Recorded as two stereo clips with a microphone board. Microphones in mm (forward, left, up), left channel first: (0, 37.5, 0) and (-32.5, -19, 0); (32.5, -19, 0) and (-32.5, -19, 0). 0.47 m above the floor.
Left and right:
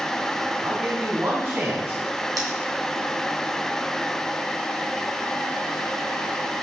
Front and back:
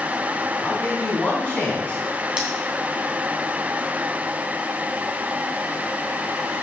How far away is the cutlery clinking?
About 2.5 m.